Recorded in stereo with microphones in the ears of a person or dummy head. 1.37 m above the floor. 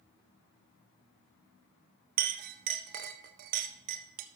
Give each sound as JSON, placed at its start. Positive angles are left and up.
{"t": 2.2, "sound": "a clink", "side_deg": -45, "distance_m": 0.5}